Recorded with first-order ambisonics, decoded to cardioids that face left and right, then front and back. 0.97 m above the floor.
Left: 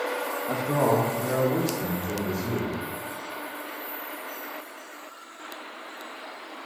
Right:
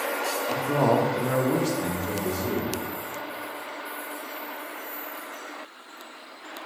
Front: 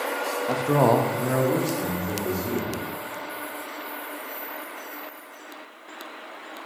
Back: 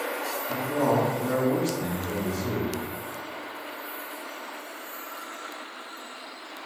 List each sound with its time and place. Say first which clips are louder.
0.5 s a man speaking: even, front 5 dB; 25° left, 1.0 m; by 2.8 s 90° right, 3 m